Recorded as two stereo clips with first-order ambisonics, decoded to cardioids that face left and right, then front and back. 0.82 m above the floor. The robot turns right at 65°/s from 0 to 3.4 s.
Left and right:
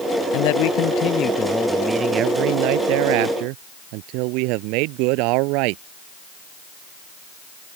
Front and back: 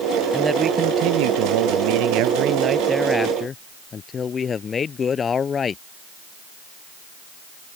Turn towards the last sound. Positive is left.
turn(degrees=-70)